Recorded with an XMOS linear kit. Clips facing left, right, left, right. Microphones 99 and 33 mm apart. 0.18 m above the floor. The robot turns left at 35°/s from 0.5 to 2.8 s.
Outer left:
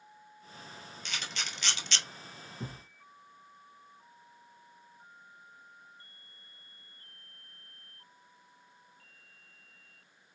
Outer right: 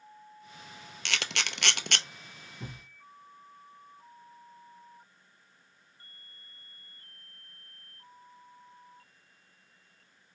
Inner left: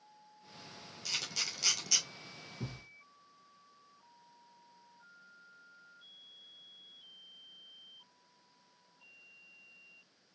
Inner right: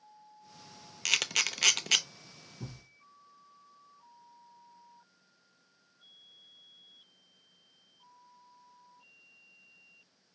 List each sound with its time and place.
1.1 s a camera shutter: 85° right, 0.6 m; by 2.0 s 60° right (ahead or behind), 0.6 m
2.6 s a thud: 35° left (ahead or behind), 2.5 m; by 2.8 s 30° left (ahead or behind), 2.5 m